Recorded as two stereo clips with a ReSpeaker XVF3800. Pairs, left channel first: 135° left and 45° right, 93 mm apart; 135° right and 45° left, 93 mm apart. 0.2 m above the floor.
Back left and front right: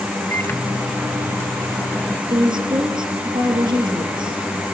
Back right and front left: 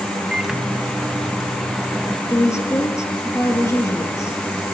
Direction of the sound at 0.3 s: 125° left.